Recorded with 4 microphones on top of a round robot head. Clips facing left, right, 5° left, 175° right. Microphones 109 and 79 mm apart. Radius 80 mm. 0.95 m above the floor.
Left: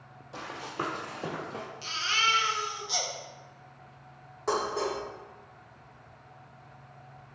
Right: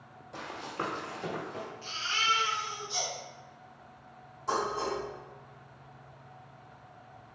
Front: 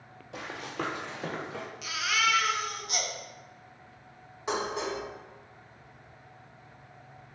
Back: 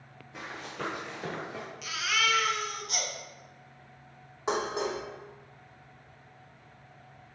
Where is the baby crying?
90° left, 0.6 m.